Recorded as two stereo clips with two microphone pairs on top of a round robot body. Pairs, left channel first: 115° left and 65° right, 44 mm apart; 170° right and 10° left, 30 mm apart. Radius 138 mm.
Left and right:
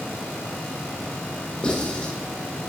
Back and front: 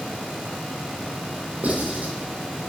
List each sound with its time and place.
1.6 s writing: 50° left, 5 m